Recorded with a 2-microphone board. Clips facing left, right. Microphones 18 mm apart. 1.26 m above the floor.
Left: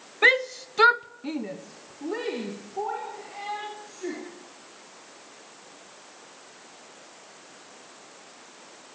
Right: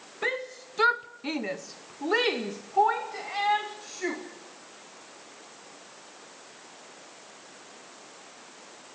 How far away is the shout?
About 1.3 m.